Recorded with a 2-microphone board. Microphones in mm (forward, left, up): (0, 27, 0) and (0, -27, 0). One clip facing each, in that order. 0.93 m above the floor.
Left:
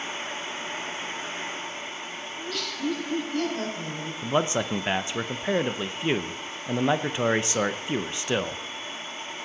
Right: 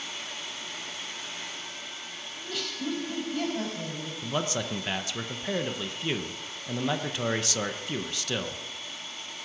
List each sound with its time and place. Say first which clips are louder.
2.4 s laughter: left 2 dB; centre (ahead or behind), 5.5 m
4.2 s a man speaking: left 6 dB; 25° left (ahead or behind), 0.6 m